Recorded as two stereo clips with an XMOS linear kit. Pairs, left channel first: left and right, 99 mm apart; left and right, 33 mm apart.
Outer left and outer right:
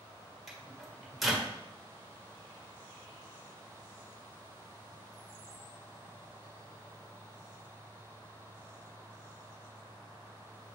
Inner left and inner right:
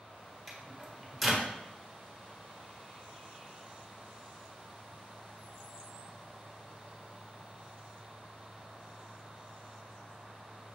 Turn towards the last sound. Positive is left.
turn(degrees=0)  # may be behind; listen again after turning